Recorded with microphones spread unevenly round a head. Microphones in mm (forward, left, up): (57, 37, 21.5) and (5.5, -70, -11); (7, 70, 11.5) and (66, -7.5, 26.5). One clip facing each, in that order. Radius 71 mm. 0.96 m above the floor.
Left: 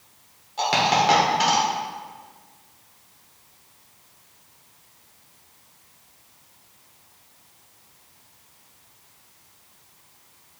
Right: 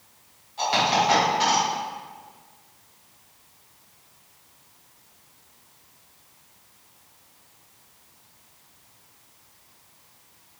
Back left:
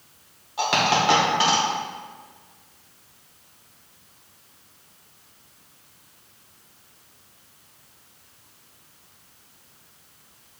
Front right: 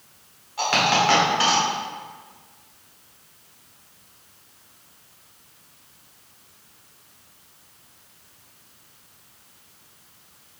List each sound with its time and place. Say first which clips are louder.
0.6 s a dropped coin: left 2 dB, even; 55° left, 1.1 m